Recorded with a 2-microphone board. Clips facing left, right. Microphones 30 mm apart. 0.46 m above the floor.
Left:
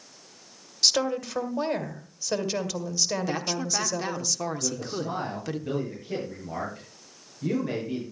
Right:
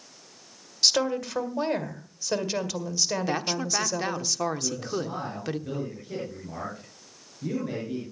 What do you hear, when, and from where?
0.8 s a woman speaking: 5° right (ahead or behind), 1.7 m
3.3 s a woman speaking: 15° right (ahead or behind), 0.8 m
4.6 s a man speaking: 10° left (ahead or behind), 7 m